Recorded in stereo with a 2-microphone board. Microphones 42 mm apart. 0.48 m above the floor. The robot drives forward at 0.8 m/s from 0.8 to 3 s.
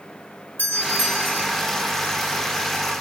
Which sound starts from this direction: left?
A doorbell, at 0.6 s.